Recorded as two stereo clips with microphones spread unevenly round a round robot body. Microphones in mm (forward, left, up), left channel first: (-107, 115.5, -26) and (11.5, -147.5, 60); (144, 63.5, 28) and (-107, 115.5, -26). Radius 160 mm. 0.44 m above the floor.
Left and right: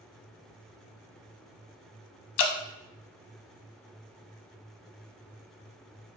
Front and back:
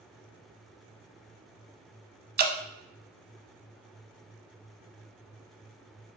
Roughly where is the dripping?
Left.